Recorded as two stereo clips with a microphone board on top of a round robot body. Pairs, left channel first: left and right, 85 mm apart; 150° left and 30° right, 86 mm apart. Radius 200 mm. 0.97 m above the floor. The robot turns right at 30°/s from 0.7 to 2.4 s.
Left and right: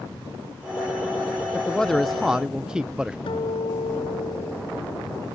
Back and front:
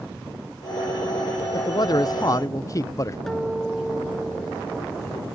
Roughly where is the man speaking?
Behind.